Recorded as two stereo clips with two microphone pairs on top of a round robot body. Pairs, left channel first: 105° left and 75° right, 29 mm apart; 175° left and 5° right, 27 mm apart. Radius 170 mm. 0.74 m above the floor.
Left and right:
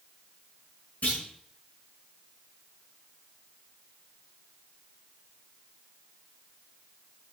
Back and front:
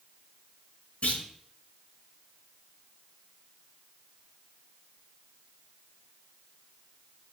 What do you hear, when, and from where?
1.0 s a clunk: 145° left, 5 m